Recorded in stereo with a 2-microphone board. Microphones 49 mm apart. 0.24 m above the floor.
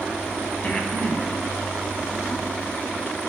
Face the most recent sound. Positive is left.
turn(degrees=35)  # may be behind; listen again after turning